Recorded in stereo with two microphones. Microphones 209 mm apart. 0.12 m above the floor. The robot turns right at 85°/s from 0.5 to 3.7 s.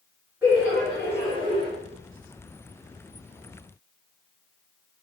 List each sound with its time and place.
0.4 s laughter: 10° right (ahead or behind), 1.9 m; by 1.7 s 30° left (ahead or behind), 1.9 m